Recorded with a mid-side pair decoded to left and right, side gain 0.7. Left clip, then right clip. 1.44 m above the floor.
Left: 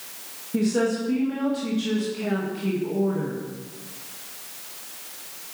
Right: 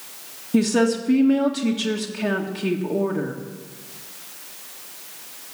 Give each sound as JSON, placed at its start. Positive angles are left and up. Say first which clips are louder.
{"t": 0.5, "sound": "a woman speaking", "louder": "right 4 dB", "azimuth_deg": -35, "distance_m": 2.0}